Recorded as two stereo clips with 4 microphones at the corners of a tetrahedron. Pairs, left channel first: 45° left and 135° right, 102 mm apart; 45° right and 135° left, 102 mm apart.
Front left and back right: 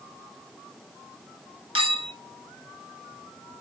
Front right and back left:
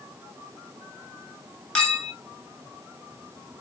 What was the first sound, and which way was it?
A clink, 125° right.